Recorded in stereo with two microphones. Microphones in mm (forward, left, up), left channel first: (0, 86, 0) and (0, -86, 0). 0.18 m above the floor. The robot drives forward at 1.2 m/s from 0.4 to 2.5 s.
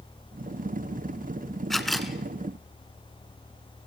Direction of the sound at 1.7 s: Centre (ahead or behind).